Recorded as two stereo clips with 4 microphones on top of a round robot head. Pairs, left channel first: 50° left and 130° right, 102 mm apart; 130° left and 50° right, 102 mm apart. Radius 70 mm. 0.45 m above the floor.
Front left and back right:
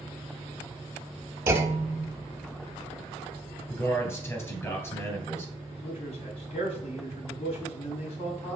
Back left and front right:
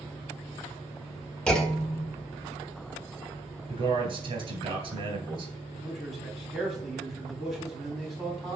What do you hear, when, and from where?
1.5 s a clunk: 160° right, 1.1 m
3.7 s a man speaking: 10° right, 3.5 m
5.7 s a man speaking: 35° left, 3 m